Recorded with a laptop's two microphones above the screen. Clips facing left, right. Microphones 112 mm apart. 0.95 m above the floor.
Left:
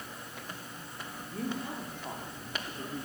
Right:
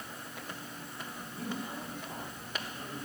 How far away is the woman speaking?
About 3.5 m.